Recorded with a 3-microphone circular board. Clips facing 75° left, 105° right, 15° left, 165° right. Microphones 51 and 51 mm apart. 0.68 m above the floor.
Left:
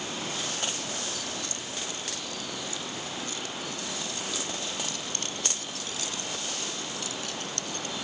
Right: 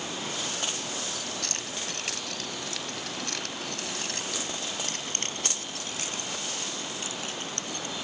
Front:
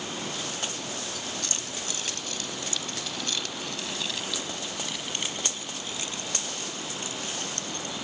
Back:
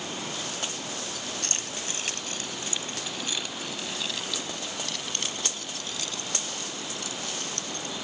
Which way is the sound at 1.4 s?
125° right.